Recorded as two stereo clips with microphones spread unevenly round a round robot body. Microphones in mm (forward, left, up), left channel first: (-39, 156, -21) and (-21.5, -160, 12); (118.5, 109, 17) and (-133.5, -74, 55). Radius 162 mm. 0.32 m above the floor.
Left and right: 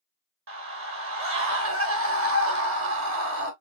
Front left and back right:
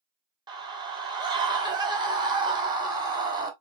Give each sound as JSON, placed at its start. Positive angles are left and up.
{"t": 0.5, "sound": "a scream", "azimuth_deg": -65, "distance_m": 1.5}